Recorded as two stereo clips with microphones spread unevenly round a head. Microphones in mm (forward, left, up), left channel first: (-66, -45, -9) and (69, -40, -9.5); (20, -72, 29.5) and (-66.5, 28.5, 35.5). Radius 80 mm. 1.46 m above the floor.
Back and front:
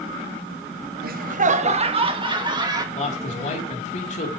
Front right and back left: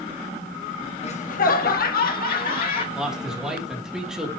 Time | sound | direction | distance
1.0 | laughter | 5° right | 1.1 m
2.9 | a man speaking | 145° right | 3.5 m